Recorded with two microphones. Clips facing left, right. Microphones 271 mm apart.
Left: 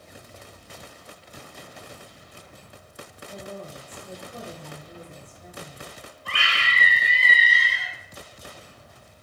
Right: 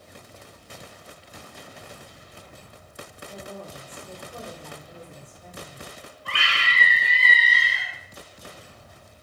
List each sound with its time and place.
3.3 s a woman speaking: 5° left (ahead or behind), 2.5 m
6.2 s a scream: centre (ahead or behind), 1.3 m